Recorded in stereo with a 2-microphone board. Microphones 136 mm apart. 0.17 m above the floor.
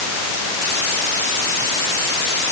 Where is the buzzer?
No buzzer in this recording.